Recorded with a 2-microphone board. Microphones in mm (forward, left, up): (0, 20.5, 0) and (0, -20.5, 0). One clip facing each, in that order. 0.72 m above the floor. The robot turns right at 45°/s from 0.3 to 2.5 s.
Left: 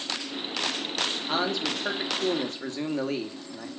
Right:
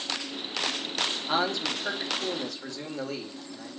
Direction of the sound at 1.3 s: 10° right.